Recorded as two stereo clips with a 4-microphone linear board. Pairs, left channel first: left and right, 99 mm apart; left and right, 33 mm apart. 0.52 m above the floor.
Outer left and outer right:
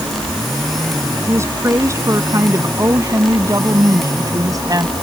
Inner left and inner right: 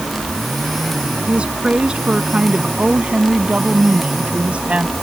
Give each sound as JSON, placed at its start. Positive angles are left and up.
{"t": 1.3, "sound": "a woman speaking", "side_deg": -30}